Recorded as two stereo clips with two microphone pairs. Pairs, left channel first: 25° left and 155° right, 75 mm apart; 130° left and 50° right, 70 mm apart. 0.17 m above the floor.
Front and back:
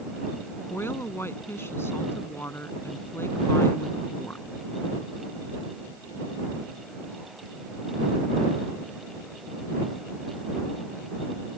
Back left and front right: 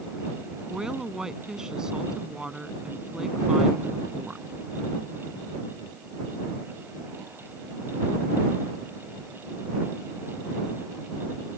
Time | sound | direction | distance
0.7 | a woman speaking | 25° left | ?